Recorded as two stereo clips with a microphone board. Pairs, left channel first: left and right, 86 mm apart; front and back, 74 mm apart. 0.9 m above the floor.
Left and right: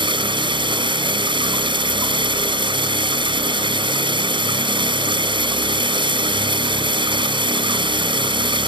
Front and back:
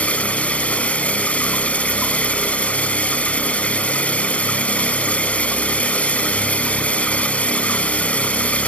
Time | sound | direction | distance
0.0 | running water | 75° right | ?